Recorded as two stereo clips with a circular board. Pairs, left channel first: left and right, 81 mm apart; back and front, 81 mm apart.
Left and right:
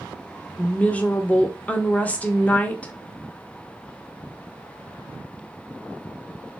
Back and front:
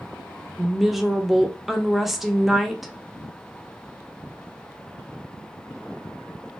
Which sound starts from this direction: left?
A woman speaking, at 0.6 s.